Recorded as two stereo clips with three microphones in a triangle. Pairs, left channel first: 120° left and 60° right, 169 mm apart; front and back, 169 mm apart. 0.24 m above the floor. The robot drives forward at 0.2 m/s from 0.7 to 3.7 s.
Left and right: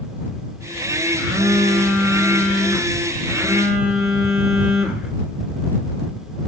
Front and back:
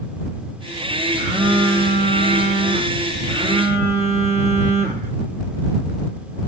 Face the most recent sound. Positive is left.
turn(degrees=-145)